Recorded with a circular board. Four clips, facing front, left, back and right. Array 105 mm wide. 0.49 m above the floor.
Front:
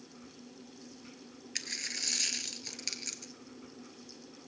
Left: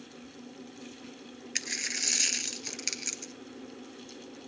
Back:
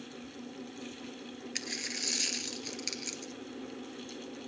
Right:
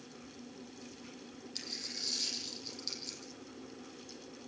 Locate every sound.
1.6 s a dropped coin: 90° left, 0.9 m